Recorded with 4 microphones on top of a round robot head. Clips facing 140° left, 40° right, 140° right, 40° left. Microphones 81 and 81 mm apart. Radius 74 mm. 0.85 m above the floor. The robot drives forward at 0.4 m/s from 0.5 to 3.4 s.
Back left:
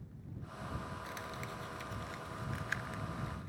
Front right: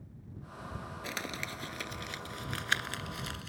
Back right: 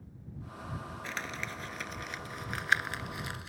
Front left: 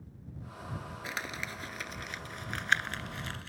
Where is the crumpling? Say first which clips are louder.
Front right 4 dB, even; 40° right; by 3.5 s 60° right.